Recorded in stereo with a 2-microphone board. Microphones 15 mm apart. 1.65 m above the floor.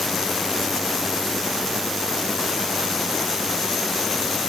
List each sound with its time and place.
Only background noise.